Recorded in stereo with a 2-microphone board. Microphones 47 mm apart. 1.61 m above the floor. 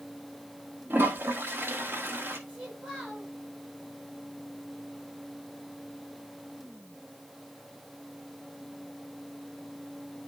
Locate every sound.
0.9 s a toilet flushing: 45° right (ahead or behind), 1.2 m
2.5 s a child speaking: 20° right (ahead or behind), 5.5 m